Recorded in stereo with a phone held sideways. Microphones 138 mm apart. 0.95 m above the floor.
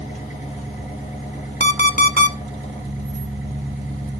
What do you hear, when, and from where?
0.0 s an engine running: 70° left (ahead or behind), 3.5 m
1.6 s an alarm clock: 65° left (ahead or behind), 0.7 m